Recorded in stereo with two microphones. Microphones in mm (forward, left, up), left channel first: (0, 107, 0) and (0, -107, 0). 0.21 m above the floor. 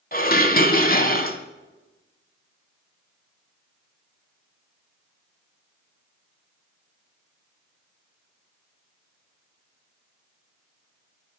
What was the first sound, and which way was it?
Dishes clattering, 45° left (ahead or behind).